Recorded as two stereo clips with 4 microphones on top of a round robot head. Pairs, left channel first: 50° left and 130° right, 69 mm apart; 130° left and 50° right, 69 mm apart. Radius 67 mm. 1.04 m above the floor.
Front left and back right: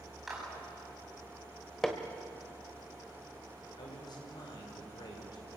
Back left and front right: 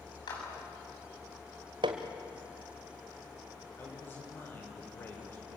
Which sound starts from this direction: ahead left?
A man speaking, at 3.8 s.